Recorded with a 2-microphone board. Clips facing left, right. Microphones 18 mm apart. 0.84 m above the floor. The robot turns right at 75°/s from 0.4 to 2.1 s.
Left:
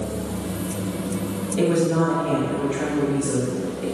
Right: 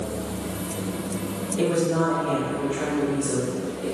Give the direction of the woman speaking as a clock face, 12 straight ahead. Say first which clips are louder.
Left 2 dB; 9 o'clock.